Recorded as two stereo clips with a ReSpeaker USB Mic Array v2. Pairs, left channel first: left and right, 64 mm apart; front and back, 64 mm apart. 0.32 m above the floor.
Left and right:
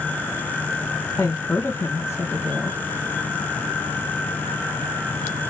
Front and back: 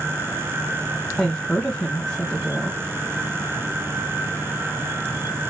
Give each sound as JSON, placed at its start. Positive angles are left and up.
{"t": 1.2, "sound": "a woman speaking", "azimuth_deg": 90, "distance_m": 1.8}